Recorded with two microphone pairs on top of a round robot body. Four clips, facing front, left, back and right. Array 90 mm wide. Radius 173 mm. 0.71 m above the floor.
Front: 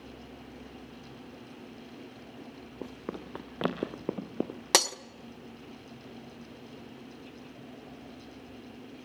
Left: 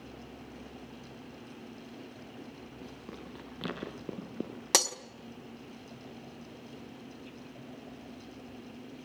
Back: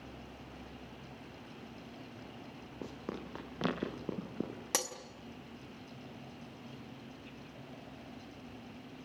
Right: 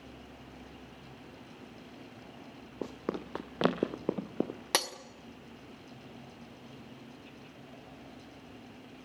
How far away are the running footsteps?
About 1.9 m.